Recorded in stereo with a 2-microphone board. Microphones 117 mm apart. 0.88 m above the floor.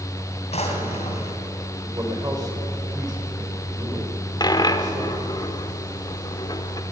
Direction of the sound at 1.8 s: 30° right (ahead or behind).